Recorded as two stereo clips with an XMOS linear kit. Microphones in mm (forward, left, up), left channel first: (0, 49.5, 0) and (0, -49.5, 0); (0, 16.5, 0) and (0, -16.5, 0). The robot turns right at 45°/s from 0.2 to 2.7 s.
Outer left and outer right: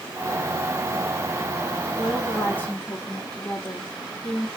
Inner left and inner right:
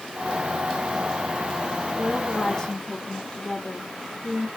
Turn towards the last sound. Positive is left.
turn(degrees=30)